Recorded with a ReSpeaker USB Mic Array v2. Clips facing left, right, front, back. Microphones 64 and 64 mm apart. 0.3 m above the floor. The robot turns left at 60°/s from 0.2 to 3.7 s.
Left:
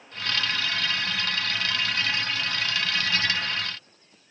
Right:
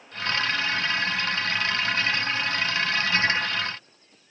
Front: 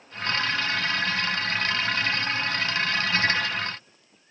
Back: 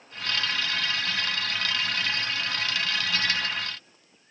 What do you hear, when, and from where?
Only background noise.